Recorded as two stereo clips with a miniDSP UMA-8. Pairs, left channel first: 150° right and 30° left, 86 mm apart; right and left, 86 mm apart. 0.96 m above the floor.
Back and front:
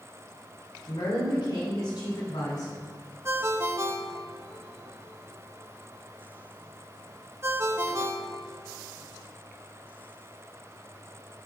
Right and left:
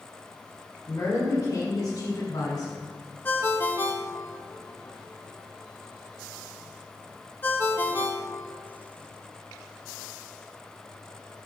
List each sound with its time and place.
0.9 s a woman speaking: 135° right, 3.5 m; by 2.9 s 120° right, 2.5 m
3.2 s a ringtone: 25° right, 0.7 m